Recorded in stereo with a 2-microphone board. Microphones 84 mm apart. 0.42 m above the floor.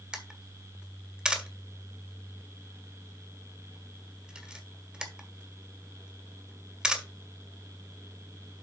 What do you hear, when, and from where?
0.1 s a camera shutter: 10° right (ahead or behind), 1.6 m